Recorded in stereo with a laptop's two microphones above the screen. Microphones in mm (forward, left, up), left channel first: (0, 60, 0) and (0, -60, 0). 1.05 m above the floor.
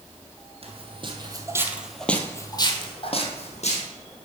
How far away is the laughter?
No laughter in this recording.